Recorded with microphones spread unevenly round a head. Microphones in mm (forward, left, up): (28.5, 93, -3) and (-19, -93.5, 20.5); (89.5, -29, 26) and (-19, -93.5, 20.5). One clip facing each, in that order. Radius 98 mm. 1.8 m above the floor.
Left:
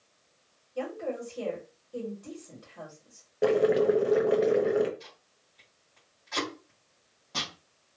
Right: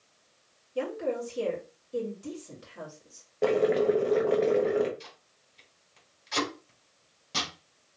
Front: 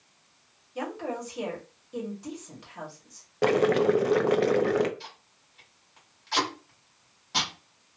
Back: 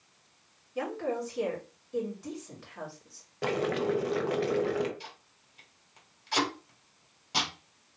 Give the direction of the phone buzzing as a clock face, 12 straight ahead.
I don't hear a phone buzzing.